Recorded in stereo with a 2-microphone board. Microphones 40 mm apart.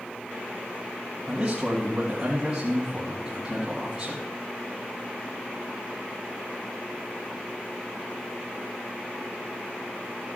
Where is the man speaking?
15° right (ahead or behind), 2.0 m.